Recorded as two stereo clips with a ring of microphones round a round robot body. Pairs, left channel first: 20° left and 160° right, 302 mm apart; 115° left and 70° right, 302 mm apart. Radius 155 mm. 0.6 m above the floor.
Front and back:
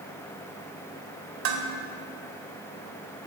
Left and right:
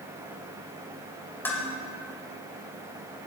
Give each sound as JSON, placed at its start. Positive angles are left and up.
{"t": 1.4, "sound": "dishes clattering", "azimuth_deg": -165, "distance_m": 2.0}